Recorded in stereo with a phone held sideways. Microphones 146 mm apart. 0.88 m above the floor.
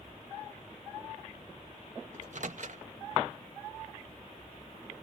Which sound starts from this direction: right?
A microwave, at 2.1 s.